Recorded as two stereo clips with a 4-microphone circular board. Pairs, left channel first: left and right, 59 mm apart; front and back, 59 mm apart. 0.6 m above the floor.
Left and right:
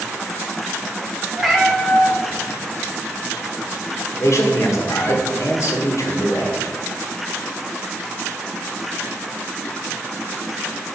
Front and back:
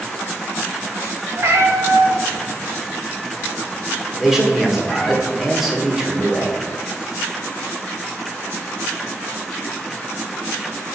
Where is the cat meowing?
175° right, 0.9 m; by 5.2 s 85° left, 2.5 m.